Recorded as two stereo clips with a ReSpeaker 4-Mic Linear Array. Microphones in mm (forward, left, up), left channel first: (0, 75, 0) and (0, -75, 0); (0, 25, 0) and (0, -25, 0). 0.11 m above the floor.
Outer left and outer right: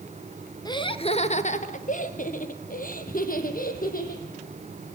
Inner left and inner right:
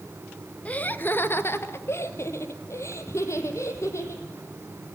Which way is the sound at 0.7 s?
25° left (ahead or behind).